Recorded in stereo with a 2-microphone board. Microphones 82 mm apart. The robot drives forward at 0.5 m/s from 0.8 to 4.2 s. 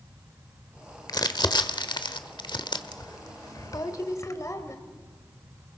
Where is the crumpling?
55° left (ahead or behind), 1.1 m; by 4.8 s 40° left (ahead or behind), 1.4 m.